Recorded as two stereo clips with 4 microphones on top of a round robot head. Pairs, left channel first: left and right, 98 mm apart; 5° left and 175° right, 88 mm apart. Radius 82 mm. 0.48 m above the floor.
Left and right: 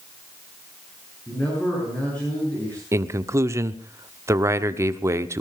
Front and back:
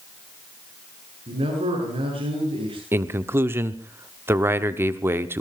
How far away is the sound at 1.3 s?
About 8.5 m.